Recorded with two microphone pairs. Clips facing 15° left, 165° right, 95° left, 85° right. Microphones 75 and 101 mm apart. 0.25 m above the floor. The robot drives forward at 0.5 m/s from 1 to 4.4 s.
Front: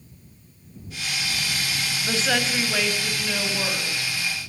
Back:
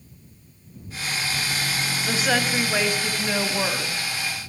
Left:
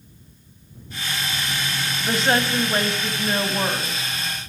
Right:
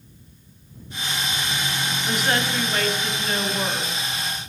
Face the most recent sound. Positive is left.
turn(degrees=155)